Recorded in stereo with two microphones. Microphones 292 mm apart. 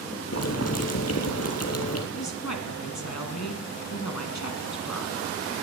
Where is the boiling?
55° left (ahead or behind), 2 m.